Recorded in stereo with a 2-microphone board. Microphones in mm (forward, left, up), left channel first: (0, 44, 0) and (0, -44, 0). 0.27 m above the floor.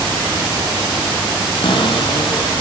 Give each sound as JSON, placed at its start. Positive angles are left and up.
{"t": 1.6, "sound": "a cupboard door", "side_deg": 70, "distance_m": 7.0}